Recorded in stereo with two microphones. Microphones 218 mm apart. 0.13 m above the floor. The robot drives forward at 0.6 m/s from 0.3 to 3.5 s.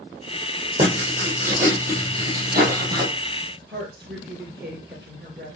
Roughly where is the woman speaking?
Right.